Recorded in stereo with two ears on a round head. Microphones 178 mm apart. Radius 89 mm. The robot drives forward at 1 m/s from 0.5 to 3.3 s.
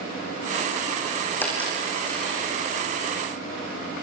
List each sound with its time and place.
1.4 s a dropped coin: 10° left (ahead or behind), 6 m